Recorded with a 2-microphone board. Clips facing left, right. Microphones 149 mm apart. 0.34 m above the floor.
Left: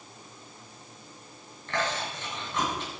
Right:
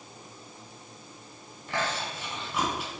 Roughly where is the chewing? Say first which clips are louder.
Left 1 dB; centre.